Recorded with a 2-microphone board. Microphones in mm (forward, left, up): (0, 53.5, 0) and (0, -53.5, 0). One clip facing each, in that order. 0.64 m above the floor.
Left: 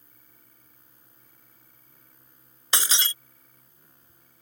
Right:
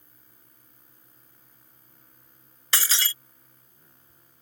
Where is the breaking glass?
20° left (ahead or behind).